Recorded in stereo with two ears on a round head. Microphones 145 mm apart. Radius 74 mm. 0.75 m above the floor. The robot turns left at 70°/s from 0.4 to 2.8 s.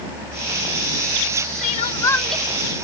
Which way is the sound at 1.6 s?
50° left.